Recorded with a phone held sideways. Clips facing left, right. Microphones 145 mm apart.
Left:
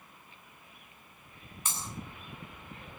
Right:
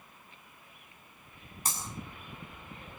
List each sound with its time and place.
1.6 s breaking glass: 40° right (ahead or behind), 7 m